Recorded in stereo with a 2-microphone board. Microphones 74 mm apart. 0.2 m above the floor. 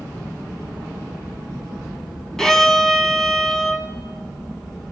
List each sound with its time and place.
2.4 s a violin: 5° left (ahead or behind), 0.6 m